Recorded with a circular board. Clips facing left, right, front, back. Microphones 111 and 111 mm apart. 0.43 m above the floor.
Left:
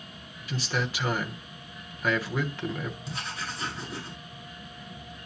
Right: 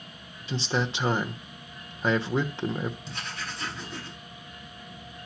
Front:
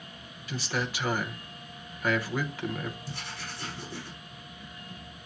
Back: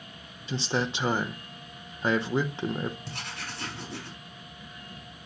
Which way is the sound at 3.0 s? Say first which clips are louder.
Left 1 dB, back 1 dB; 175° left.